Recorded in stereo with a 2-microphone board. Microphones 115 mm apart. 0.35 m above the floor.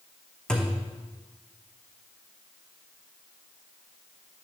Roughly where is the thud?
Centre.